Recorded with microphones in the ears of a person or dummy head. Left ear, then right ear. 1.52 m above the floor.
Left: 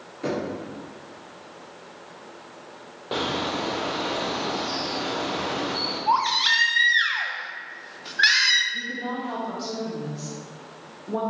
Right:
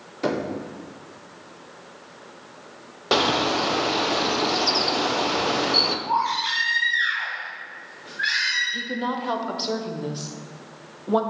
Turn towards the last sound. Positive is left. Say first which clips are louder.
# right 2 dB
turn(degrees=-55)  # may be behind; listen again after turning